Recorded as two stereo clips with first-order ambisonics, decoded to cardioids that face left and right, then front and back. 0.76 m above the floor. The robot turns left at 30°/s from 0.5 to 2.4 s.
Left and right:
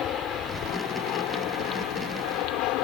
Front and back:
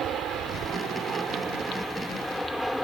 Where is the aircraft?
130° left; by 2.8 s 90° left.